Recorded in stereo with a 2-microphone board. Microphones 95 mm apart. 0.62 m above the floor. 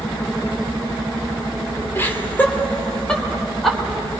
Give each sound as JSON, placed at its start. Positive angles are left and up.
{"t": 1.9, "sound": "laughter", "side_deg": 25, "distance_m": 2.0}